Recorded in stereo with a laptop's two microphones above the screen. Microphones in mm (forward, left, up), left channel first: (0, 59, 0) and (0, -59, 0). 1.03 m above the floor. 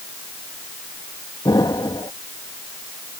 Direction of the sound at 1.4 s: 35° left (ahead or behind).